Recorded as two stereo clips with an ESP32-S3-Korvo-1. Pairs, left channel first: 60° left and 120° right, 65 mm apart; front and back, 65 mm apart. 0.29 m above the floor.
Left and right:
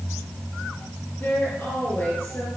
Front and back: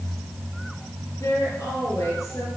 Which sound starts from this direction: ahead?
A woman speaking, at 1.2 s.